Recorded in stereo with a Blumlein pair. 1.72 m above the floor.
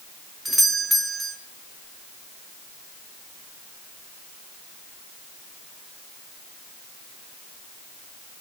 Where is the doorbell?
Straight ahead, 1.4 m.